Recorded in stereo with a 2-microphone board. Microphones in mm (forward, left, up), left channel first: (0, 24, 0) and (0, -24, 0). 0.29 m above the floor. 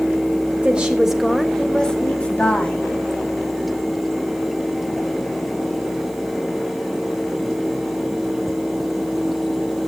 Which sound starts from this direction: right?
A woman speaking, at 0.6 s.